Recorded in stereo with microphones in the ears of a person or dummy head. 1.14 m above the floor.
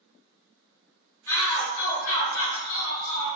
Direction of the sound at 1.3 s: 10° left (ahead or behind).